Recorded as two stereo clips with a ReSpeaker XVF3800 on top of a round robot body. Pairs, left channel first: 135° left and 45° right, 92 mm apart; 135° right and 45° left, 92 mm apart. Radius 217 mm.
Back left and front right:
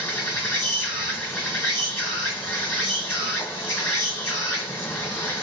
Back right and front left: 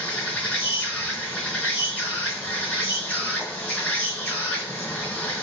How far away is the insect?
About 1.6 m.